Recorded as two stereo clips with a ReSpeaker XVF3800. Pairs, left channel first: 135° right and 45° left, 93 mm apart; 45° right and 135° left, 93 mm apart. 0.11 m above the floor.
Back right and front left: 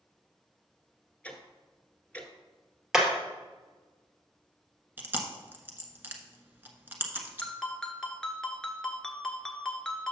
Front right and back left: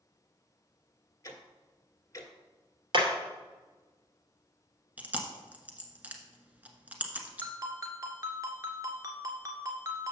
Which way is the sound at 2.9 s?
125° left.